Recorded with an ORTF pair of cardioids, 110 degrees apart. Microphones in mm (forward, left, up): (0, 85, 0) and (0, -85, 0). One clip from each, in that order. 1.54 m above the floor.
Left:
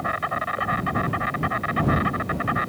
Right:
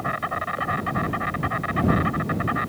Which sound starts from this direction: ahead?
An insect, at 0.0 s.